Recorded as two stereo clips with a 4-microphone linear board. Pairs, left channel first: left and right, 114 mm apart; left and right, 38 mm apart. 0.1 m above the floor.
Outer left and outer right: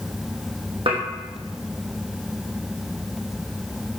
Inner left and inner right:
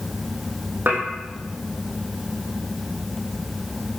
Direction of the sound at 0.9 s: 55° right (ahead or behind).